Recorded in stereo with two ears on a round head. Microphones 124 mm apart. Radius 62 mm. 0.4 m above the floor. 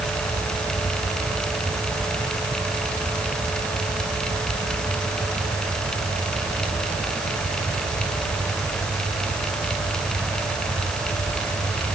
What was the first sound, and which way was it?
Only background noise.